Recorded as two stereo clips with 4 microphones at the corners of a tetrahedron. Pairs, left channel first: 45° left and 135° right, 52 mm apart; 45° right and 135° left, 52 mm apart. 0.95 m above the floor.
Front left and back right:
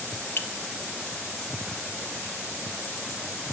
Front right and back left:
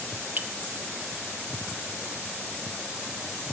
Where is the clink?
85° left, 0.7 m.